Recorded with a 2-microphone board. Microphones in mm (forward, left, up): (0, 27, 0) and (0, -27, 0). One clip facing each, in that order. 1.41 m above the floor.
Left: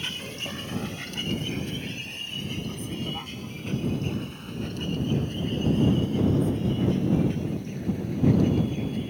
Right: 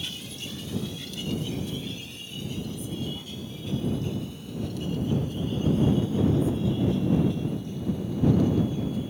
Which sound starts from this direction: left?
A vehicle, at 0.0 s.